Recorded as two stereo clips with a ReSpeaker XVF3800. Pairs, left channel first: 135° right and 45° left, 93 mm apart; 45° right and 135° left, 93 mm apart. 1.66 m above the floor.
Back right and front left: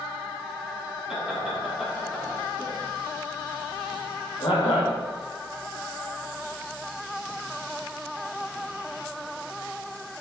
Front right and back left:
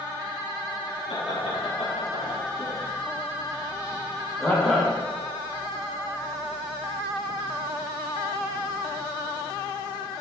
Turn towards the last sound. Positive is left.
turn(degrees=-130)